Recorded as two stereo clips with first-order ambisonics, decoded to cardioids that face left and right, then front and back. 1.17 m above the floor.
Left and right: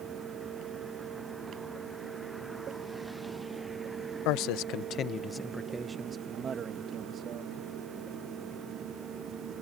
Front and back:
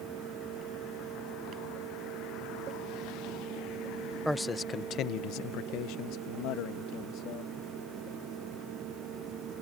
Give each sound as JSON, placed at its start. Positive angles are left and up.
{"t": 4.2, "sound": "a man speaking", "azimuth_deg": 90}